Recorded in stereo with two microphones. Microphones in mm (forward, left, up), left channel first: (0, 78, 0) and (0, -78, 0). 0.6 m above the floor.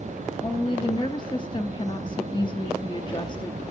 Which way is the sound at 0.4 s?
30° left (ahead or behind).